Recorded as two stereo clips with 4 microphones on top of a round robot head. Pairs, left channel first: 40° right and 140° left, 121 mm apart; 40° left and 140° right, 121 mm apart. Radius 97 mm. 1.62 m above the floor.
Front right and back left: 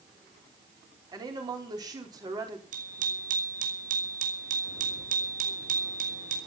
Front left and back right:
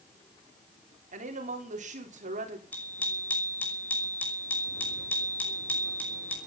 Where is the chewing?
I don't hear chewing.